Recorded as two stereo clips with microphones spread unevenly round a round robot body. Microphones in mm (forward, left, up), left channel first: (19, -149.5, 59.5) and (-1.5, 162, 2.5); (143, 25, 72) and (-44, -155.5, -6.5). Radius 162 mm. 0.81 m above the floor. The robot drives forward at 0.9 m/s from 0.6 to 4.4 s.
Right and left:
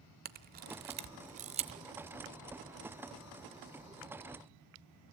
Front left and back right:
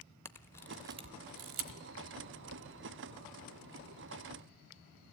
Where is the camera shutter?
50° left, 0.5 m; by 1.8 s 170° left, 1.1 m.